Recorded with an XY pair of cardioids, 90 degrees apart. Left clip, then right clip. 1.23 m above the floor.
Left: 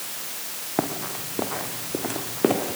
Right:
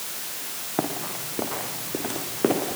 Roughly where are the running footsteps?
Ahead.